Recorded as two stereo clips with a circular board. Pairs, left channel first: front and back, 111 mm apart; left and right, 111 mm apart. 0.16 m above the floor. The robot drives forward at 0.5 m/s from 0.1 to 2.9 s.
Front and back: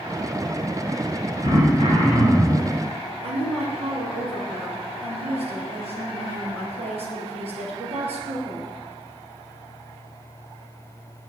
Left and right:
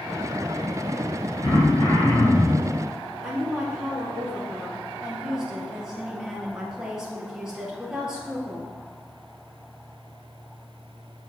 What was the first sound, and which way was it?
Throat clearing, 135° left.